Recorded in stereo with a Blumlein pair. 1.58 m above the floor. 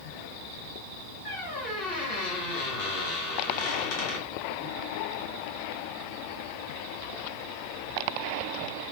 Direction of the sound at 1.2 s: 45° left.